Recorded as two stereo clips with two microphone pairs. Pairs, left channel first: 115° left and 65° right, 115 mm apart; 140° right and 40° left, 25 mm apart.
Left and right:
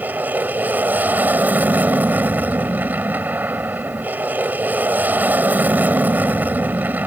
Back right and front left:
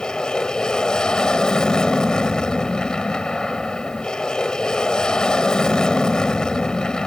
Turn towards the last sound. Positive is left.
turn(degrees=-125)